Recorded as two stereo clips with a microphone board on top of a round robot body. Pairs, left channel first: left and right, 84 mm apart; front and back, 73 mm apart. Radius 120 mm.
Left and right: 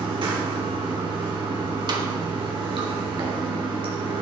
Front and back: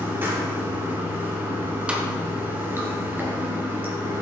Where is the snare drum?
105° right, 1.4 m.